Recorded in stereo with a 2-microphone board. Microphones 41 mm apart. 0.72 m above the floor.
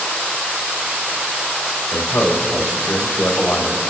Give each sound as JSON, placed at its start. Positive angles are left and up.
{"t": 1.9, "sound": "a man speaking", "side_deg": 65, "distance_m": 2.5}